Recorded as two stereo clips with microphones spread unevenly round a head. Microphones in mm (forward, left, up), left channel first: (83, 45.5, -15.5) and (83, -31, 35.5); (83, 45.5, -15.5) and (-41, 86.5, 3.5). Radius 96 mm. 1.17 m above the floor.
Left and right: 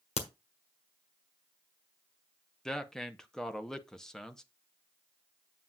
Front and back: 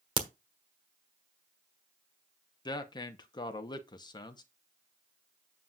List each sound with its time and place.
0.2 s a crack: 120° left, 1.3 m
2.6 s a man speaking: 30° left, 0.8 m